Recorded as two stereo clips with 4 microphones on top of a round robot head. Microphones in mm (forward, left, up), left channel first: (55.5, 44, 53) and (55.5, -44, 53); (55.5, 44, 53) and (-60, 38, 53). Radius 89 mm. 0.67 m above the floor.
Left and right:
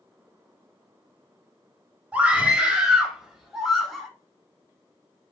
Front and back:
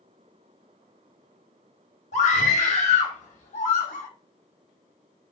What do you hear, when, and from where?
2.1 s a scream: 15° right, 3 m; by 4.1 s straight ahead, 4 m